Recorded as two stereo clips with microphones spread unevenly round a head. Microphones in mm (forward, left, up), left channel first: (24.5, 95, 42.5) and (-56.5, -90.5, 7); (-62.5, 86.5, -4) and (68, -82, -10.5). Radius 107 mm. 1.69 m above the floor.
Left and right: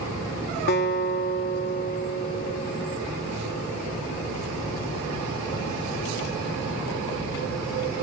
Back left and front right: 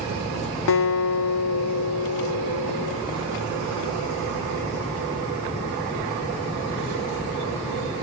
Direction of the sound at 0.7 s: 105° left.